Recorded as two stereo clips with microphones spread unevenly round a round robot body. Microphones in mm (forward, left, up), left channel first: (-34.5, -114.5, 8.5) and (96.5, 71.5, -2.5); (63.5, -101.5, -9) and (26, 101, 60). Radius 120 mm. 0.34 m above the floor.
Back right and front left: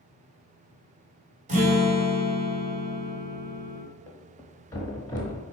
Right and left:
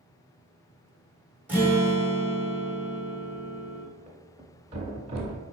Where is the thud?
160° left, 0.5 m.